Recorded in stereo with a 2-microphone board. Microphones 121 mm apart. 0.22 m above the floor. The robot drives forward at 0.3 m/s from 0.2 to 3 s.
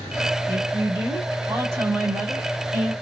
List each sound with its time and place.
0.5 s a woman speaking: 25° right (ahead or behind), 1.6 m